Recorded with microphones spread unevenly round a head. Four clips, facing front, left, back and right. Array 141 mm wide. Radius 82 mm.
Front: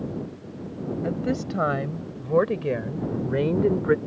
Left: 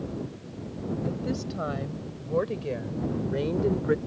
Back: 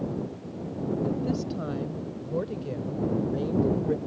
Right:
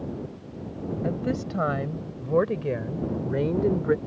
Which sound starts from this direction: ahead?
A woman speaking, at 1.0 s.